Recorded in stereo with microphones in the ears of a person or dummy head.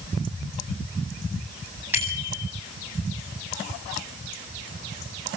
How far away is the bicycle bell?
About 9 m.